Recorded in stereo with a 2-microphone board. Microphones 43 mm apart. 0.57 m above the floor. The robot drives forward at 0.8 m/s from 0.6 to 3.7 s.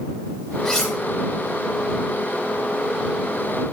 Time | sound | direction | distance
0.7 | cutlery clinking | 15° left (ahead or behind) | 2.5 m